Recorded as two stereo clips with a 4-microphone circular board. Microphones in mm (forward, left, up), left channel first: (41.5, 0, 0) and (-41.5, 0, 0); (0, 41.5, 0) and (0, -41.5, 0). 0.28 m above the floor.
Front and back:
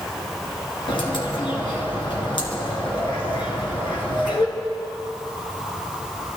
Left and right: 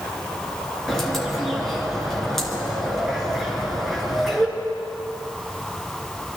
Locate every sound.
0.9 s a bird: 5° left, 3 m